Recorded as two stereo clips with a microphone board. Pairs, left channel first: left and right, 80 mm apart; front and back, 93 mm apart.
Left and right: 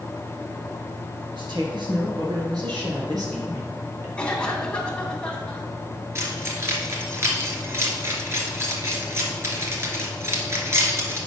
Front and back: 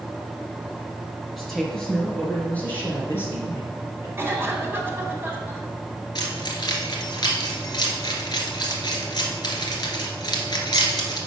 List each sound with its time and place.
1.4 s a woman speaking: 90° right, 4 m; by 4.1 s 50° right, 3.5 m
4.2 s a cough: 150° left, 1.8 m
6.2 s keys jangling: 40° right, 1.9 m